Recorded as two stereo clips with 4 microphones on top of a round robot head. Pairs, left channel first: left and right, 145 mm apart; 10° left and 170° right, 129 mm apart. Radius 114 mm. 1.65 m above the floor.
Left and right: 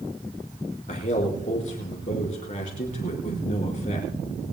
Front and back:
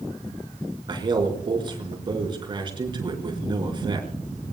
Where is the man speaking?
140° left, 5 m.